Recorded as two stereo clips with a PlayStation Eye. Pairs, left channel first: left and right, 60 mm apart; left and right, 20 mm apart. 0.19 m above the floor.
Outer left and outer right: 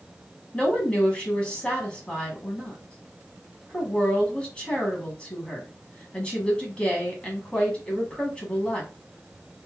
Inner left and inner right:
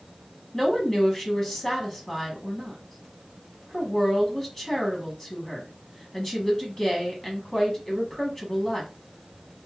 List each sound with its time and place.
0.5 s a woman speaking: 15° left (ahead or behind), 1.2 m